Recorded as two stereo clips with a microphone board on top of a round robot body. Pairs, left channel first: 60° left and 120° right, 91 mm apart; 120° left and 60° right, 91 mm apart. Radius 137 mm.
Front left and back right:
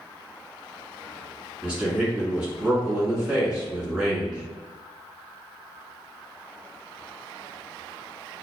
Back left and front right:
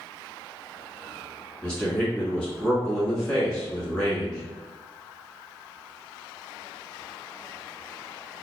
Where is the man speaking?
175° left, 1.5 m.